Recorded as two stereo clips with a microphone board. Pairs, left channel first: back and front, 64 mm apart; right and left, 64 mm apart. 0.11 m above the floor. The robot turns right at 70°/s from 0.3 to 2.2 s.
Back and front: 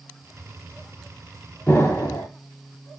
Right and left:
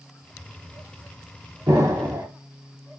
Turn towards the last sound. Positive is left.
turn(degrees=150)